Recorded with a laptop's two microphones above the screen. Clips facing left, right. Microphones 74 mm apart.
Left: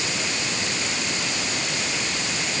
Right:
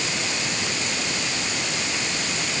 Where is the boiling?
I don't hear boiling.